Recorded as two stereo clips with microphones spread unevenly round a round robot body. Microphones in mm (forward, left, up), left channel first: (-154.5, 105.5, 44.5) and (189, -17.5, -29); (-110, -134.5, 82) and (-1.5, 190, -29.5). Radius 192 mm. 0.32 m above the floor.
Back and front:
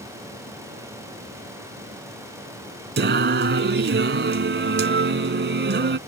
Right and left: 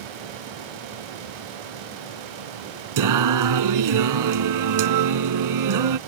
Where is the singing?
40° left.